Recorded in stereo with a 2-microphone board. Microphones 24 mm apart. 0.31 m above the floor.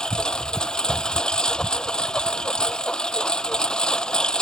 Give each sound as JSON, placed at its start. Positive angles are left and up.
{"t": 0.0, "sound": "a lawn mower", "side_deg": 35}